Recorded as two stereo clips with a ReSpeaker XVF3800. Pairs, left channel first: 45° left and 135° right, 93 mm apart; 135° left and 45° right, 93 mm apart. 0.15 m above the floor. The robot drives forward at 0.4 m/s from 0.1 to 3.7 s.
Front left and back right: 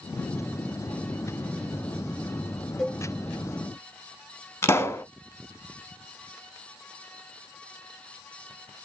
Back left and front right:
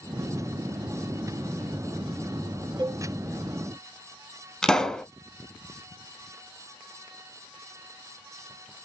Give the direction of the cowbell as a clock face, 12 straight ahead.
1 o'clock.